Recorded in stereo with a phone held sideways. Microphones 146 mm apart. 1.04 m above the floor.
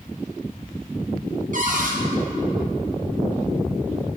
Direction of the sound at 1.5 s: 65° right (ahead or behind).